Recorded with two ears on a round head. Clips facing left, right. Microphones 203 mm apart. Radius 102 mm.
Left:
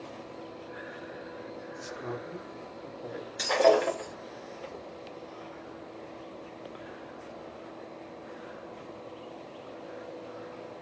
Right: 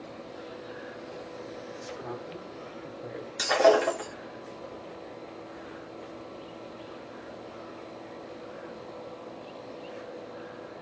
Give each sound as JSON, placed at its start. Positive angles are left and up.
{"t": 1.8, "sound": "a man speaking", "side_deg": 40, "distance_m": 1.0}
{"t": 3.4, "sound": "breaking glass", "side_deg": -5, "distance_m": 1.6}